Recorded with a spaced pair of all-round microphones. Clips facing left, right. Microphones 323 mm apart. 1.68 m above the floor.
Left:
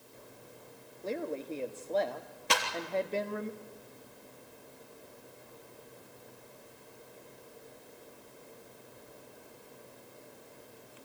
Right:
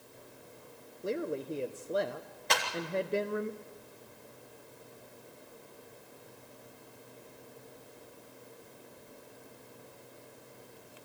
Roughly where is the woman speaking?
Centre.